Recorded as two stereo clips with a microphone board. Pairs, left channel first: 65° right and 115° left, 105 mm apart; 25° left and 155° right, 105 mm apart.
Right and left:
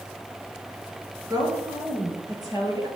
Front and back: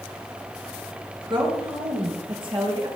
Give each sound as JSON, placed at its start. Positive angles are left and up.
{"t": 1.3, "sound": "a woman speaking", "azimuth_deg": 165, "distance_m": 4.0}